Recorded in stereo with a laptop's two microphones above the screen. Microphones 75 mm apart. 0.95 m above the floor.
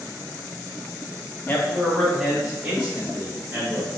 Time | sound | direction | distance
1.5 | a man speaking | 25° left (ahead or behind) | 0.6 m